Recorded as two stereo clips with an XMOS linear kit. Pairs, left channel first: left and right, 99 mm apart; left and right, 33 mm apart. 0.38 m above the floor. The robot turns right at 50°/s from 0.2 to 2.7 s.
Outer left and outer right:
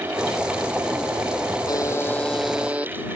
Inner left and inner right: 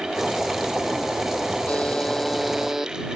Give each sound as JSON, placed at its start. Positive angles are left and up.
{"t": 1.7, "sound": "a buzzer", "azimuth_deg": 140}